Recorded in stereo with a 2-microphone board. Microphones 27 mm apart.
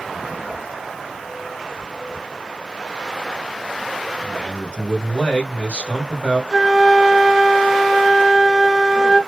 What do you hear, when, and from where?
4.2 s a man speaking: 50° left (ahead or behind), 1.9 m
6.5 s a flute: 5° right (ahead or behind), 1.2 m